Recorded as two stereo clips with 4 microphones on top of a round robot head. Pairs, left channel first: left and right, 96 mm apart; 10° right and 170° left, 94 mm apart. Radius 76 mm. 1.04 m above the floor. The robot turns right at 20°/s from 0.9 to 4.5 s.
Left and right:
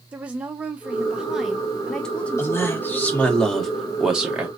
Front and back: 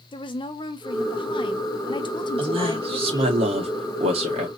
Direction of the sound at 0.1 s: 15° right.